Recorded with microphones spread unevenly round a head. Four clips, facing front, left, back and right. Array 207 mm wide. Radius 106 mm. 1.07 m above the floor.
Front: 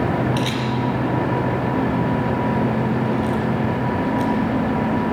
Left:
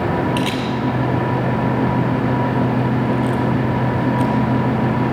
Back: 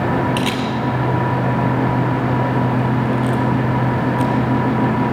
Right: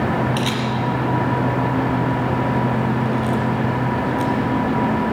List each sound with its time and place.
0.4 s a camera shutter: straight behind, 4.5 m